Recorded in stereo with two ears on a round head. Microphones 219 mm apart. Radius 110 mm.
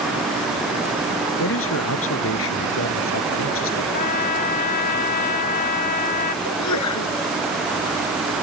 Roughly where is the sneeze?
Left.